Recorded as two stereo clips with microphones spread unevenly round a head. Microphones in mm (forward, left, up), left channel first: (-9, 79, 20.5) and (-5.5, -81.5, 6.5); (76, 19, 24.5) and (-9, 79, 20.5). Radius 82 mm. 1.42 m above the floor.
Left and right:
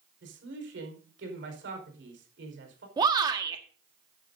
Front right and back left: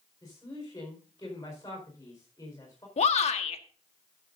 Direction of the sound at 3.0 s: 20° right.